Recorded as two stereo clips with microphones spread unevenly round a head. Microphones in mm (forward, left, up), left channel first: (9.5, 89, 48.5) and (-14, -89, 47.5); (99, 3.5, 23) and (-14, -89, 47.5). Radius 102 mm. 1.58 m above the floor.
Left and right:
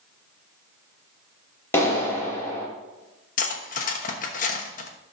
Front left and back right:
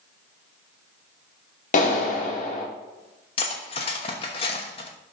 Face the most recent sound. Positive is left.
turn(degrees=95)